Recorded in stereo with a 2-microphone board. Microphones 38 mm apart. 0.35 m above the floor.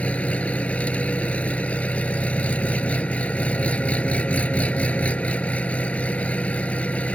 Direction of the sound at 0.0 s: 40° left (ahead or behind).